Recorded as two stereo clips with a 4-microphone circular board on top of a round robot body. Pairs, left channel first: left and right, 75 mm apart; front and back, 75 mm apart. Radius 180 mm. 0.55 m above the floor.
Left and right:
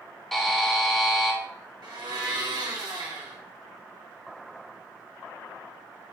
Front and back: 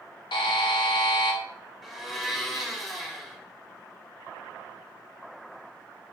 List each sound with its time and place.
0.3 s a buzzer: 5° left, 0.6 m
1.8 s a blender: 90° right, 1.5 m